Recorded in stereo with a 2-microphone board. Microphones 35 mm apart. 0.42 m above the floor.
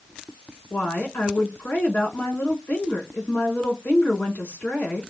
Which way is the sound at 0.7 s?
75° left (ahead or behind).